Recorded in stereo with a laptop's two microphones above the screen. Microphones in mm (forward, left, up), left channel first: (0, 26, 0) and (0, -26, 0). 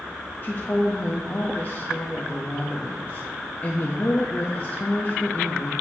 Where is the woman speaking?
40° left (ahead or behind), 0.9 m.